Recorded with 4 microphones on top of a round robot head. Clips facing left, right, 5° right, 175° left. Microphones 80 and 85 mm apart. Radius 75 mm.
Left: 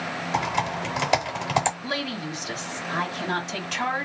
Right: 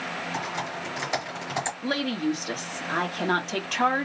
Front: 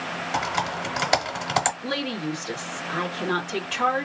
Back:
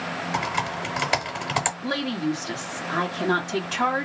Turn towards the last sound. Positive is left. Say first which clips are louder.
# right 4 dB, back 2 dB
turn(degrees=-120)